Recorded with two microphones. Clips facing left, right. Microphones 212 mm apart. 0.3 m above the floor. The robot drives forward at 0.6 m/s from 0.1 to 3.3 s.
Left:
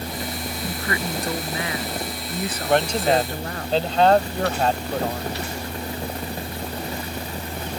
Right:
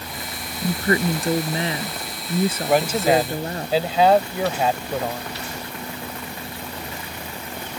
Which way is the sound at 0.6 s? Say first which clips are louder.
Right 9 dB; 35° right (ahead or behind).